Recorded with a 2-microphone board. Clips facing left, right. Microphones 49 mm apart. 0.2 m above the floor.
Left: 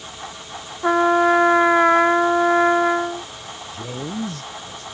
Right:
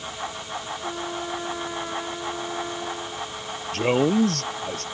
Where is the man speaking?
70° right (ahead or behind).